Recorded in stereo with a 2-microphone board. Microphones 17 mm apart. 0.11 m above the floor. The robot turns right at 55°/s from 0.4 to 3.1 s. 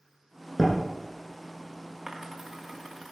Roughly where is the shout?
No shout in this recording.